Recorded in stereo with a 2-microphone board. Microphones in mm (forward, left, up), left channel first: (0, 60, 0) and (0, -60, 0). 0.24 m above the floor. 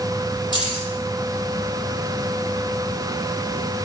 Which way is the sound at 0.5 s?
45° left (ahead or behind).